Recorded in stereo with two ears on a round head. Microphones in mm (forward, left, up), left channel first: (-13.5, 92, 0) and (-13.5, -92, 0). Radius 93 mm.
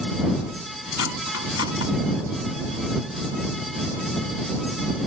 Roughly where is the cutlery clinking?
Left.